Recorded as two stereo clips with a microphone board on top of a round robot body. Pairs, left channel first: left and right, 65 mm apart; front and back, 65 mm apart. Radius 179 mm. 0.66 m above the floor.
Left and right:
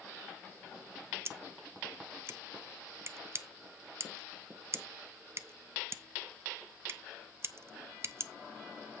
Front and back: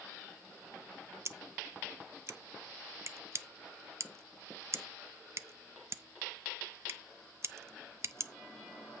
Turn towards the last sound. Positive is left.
turn(degrees=-135)